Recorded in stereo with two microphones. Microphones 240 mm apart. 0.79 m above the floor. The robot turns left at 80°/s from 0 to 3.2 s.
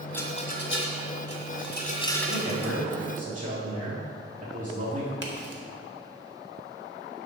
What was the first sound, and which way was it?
A rattle, 5° left (ahead or behind).